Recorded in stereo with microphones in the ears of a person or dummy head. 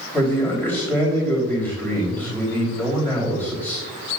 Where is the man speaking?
20° left (ahead or behind), 3 m.